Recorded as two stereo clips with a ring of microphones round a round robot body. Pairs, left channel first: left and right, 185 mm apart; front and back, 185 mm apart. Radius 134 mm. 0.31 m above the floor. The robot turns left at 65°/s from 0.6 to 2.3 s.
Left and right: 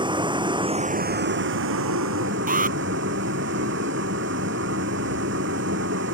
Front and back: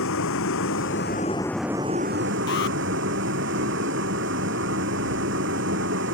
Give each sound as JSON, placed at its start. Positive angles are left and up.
{"t": 0.0, "sound": "a vehicle", "azimuth_deg": -25}
{"t": 2.5, "sound": "an alarm", "azimuth_deg": -50}